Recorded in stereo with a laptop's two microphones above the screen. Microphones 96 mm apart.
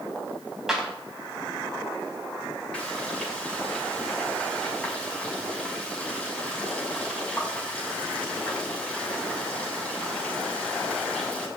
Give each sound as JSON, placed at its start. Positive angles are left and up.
{"t": 0.7, "sound": "a clap", "side_deg": -5, "distance_m": 5.0}
{"t": 2.7, "sound": "frying", "side_deg": 10, "distance_m": 6.0}